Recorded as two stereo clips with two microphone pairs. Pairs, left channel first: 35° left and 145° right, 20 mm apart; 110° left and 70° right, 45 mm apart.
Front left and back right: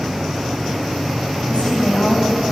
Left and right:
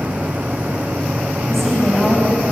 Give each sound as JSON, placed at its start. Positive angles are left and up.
{"t": 1.5, "sound": "a woman speaking", "azimuth_deg": 25, "distance_m": 8.5}